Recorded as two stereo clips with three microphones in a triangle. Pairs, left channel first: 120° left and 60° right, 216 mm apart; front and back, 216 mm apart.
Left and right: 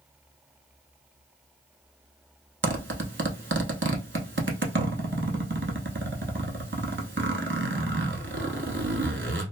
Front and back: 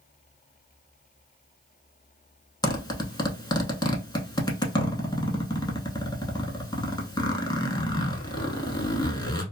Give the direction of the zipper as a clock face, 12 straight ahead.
2 o'clock.